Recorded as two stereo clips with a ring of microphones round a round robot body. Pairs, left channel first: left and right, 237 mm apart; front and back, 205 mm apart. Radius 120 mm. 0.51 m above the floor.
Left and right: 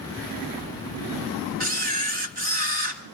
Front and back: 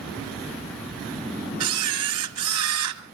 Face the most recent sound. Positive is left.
turn(degrees=-150)